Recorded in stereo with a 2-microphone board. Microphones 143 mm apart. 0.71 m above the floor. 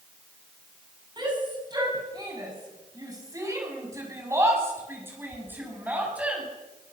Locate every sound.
1.2 s a shout: 30° right (ahead or behind), 7.5 m; by 6.4 s 10° right (ahead or behind), 6.5 m